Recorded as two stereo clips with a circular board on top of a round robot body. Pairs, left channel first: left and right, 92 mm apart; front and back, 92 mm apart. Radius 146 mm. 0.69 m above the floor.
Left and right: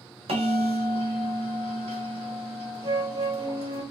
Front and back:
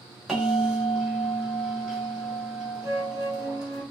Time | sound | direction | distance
0.3 | a bell | 95° right | 1.3 m
2.8 | a flute | 130° right | 1.9 m